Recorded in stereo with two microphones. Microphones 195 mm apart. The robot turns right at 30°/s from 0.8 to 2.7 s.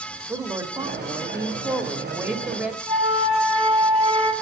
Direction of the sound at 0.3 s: 20° right (ahead or behind).